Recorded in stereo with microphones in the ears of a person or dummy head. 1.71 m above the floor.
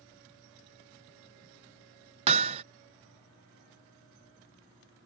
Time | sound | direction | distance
2.3 | hammering | 35° right (ahead or behind) | ?